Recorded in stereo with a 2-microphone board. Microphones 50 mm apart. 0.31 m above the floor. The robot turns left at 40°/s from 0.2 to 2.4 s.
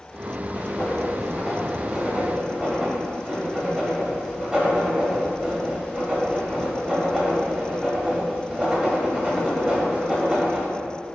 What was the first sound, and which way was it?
Writing, 35° left (ahead or behind).